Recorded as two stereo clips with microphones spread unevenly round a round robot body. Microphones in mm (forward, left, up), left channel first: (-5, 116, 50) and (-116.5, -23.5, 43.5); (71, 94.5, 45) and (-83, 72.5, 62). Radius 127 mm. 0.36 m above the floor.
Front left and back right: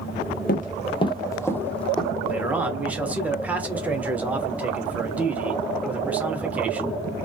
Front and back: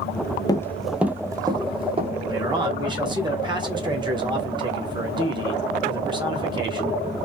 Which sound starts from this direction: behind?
A man speaking, at 2.3 s.